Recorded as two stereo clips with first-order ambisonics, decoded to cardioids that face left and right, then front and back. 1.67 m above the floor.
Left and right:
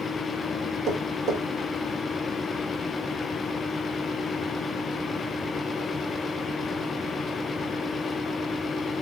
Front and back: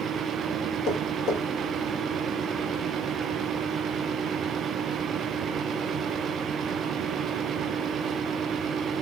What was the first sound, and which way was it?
Tapping, 35° right.